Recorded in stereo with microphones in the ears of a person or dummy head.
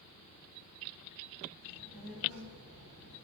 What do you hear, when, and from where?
1.6 s a child speaking: 85° right, 4.5 m; by 3.1 s 75° right (ahead or behind), 2.5 m